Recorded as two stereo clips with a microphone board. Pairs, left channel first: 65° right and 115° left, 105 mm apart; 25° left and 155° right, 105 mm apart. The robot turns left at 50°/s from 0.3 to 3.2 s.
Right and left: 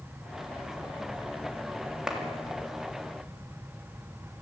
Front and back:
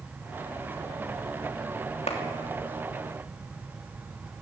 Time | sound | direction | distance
2.1 | a clap | 30° left | 3 m